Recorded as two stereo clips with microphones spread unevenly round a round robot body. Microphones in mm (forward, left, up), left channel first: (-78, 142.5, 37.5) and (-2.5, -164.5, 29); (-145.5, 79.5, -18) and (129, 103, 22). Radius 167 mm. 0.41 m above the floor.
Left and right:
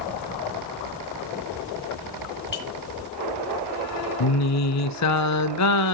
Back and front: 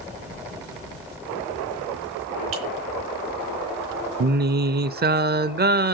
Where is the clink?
45° left, 4 m.